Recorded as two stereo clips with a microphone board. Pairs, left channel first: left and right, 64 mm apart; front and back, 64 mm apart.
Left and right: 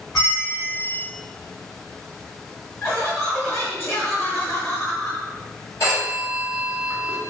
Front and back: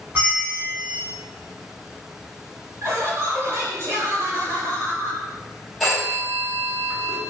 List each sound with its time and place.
0.1 s a bell: 125° left, 1.4 m
2.8 s laughter: 140° left, 1.4 m
5.8 s a phone ringing: 90° left, 1.2 m